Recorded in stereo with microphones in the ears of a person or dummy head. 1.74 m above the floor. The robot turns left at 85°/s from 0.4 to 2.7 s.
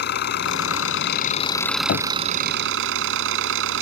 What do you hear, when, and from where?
0.0 s an engine running: 120° left; by 3.8 s 75° right
1.9 s knocking: 45° left (ahead or behind); by 2.1 s 50° left (ahead or behind)